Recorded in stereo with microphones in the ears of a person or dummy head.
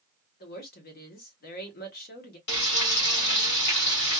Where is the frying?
60° left (ahead or behind), 1.5 m.